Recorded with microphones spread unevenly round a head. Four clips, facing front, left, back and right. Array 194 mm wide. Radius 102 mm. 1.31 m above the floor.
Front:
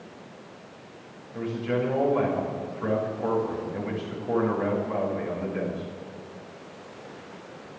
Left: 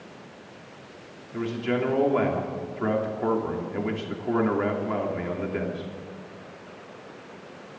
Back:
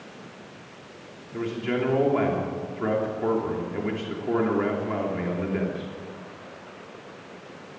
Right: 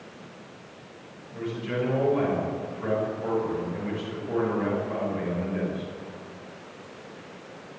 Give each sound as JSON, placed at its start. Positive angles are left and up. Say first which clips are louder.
{"t": 1.3, "sound": "a man speaking", "louder": "left 3 dB, back 1 dB", "azimuth_deg": 130, "distance_m": 3.0}